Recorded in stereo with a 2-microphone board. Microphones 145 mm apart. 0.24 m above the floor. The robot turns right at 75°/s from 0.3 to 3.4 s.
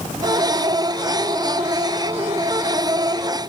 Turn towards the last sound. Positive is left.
No sound to turn to.